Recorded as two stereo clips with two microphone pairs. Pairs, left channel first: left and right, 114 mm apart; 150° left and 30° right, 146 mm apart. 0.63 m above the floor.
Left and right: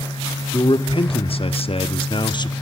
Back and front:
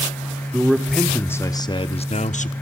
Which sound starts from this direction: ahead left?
A man speaking, at 0.5 s.